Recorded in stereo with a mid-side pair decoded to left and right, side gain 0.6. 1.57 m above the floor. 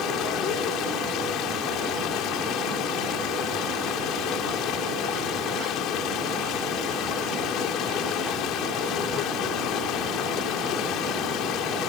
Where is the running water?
65° left.